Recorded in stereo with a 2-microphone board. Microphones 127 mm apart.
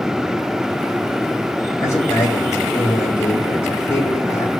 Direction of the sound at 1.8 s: 20° left (ahead or behind).